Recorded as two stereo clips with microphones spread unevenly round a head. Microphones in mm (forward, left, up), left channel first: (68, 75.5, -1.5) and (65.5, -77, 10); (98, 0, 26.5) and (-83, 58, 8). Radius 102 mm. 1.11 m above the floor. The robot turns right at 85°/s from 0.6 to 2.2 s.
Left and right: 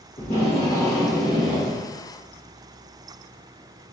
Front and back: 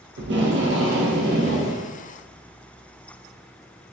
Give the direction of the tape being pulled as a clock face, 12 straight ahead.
7 o'clock.